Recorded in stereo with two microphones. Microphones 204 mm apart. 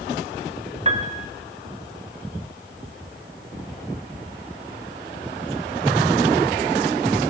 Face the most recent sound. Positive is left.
turn(degrees=-30)  # may be behind; listen again after turning